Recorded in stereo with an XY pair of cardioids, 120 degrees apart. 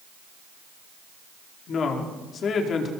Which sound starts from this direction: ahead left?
A woman speaking, at 1.7 s.